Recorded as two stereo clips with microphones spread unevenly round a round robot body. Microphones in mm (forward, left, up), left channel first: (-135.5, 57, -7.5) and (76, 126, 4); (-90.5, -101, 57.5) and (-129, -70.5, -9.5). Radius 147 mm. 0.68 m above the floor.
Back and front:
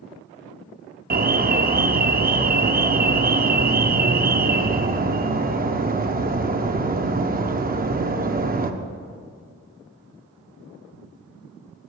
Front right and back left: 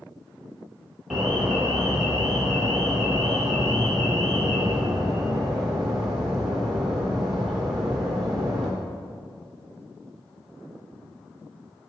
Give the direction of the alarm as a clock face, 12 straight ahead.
10 o'clock.